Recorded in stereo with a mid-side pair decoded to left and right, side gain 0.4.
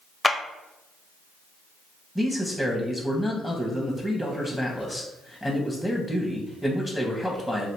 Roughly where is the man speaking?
Ahead.